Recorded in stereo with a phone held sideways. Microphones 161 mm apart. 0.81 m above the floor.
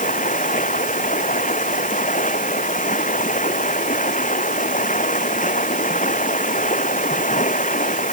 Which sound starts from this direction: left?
Running water, at 0.0 s.